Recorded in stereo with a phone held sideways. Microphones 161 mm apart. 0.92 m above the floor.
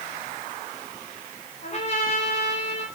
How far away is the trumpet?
About 4 m.